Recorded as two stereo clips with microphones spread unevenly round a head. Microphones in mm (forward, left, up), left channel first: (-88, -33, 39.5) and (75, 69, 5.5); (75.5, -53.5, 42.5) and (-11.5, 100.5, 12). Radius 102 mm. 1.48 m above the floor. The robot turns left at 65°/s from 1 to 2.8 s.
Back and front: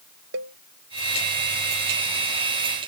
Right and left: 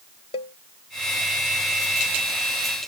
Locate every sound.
0.3 s a cowbell: 5° right